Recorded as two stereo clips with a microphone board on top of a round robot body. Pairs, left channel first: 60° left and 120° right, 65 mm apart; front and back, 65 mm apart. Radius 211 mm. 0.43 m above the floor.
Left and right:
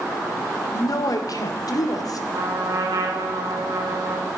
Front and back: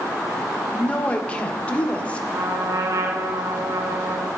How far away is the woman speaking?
About 2.5 m.